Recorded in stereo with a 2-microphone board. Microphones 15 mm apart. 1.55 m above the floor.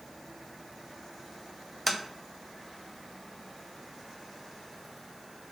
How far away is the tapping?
About 0.8 m.